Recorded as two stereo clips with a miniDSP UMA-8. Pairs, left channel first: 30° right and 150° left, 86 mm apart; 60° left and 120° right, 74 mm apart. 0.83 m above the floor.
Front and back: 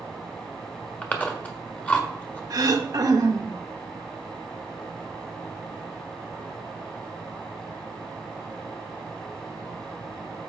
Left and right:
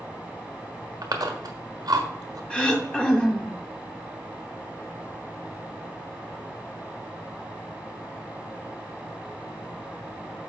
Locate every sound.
1.0 s chewing: 100° right, 1.3 m
2.5 s throat clearing: 135° left, 1.1 m